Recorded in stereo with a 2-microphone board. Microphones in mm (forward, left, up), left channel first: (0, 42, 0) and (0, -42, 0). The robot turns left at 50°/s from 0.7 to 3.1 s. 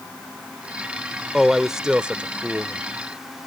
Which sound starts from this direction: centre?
A man speaking, at 1.3 s.